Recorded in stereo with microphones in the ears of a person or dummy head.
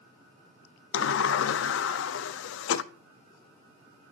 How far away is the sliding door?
About 0.7 m.